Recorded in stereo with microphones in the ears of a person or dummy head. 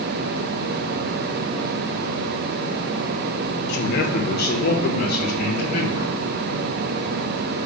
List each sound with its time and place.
3.7 s a man speaking: 60° left (ahead or behind), 1.0 m; by 6.2 s 50° left (ahead or behind), 2.5 m